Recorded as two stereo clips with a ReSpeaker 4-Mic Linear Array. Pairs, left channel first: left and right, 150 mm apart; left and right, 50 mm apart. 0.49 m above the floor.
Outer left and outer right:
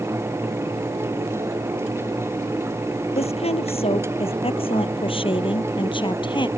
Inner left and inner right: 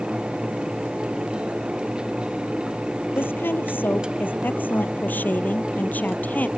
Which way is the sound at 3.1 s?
45° left (ahead or behind).